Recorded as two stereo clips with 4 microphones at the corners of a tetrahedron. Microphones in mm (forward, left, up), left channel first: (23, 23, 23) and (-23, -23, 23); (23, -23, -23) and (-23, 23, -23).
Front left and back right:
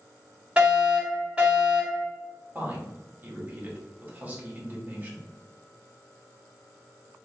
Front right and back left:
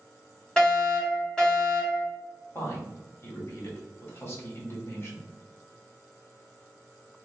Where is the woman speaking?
80° right, 1.0 m.